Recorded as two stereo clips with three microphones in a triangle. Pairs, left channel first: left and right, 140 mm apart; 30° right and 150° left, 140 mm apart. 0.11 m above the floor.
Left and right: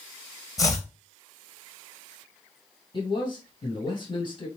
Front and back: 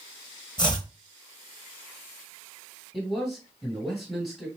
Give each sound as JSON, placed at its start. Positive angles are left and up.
{"t": 0.6, "sound": "chopping", "azimuth_deg": 25, "distance_m": 0.9}
{"t": 2.9, "sound": "a man speaking", "azimuth_deg": 60, "distance_m": 1.8}